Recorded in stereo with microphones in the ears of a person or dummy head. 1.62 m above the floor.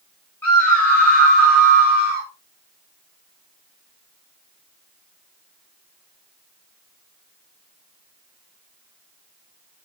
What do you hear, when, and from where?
0.4 s a scream: 5° left (ahead or behind), 7.5 m